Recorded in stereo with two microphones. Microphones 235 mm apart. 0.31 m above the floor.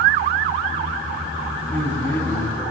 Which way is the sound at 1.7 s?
10° left (ahead or behind).